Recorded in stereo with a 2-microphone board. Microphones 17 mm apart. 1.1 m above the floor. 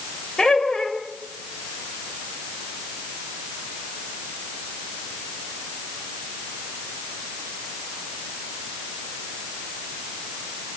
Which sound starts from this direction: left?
Laughter, at 0.4 s.